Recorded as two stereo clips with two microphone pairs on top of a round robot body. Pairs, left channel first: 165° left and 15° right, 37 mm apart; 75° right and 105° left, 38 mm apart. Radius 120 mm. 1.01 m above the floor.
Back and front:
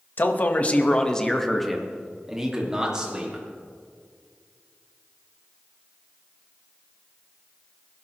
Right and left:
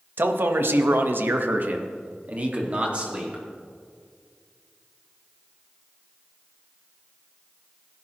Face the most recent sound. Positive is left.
turn(degrees=50)